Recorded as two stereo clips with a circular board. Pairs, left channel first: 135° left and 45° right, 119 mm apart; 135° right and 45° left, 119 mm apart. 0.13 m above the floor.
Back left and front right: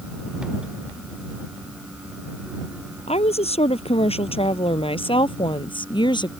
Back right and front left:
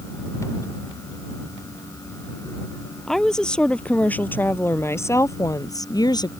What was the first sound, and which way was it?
A woman speaking, 140° left.